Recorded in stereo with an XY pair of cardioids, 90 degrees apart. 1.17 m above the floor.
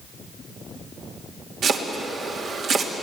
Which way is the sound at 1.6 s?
65° right.